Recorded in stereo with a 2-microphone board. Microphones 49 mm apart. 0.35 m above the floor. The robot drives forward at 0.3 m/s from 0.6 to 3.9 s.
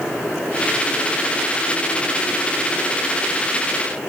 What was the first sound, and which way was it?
Only background noise.